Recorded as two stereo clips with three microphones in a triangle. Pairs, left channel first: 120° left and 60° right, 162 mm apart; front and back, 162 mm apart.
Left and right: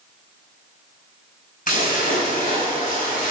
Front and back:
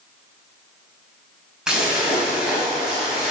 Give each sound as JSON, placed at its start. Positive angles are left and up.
{"t": 1.7, "sound": "a splash", "azimuth_deg": 95, "distance_m": 2.5}